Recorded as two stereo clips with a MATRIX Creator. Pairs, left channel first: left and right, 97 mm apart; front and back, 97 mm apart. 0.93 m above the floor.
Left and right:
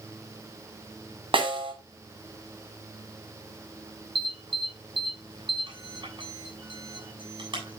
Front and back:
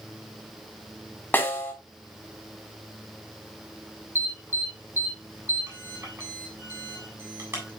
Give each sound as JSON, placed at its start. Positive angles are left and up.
{"t": 1.3, "sound": "a snare drum", "azimuth_deg": -70, "distance_m": 5.5}
{"t": 4.2, "sound": "an alarm", "azimuth_deg": -115, "distance_m": 8.0}